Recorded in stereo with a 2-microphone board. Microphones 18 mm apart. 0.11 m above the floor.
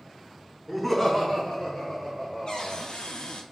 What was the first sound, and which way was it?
Laughter, 10° right (ahead or behind).